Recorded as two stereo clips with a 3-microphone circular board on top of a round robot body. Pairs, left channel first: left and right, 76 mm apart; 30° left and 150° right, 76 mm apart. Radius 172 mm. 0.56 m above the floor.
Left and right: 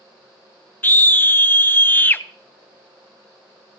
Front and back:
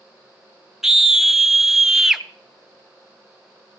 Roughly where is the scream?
Behind left.